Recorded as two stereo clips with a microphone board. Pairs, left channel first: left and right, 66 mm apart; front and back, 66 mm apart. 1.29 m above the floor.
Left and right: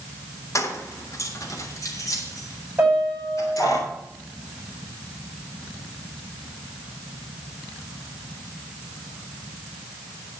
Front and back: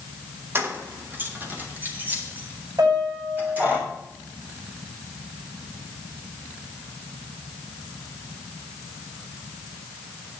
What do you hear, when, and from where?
0.6 s keys jangling: 125° left, 1.1 m; by 3.8 s 120° left, 3 m
2.8 s a piano: 155° right, 7 m